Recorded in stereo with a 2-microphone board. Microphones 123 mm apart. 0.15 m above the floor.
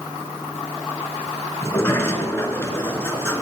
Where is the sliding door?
25° left (ahead or behind), 0.7 m.